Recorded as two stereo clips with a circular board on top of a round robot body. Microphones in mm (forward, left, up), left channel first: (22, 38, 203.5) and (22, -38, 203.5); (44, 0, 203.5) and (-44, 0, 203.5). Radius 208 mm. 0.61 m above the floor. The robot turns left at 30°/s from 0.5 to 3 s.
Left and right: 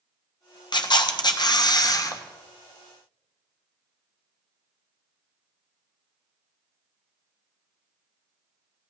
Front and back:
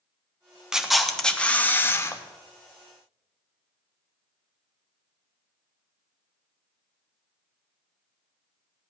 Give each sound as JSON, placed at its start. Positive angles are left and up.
{"t": 0.7, "sound": "a camera shutter", "azimuth_deg": 95, "distance_m": 1.3}